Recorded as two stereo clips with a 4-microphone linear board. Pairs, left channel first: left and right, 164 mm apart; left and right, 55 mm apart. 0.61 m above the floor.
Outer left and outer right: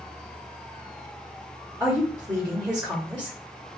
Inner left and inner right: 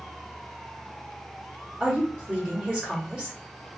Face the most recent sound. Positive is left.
turn(degrees=-5)  # may be behind; listen again after turning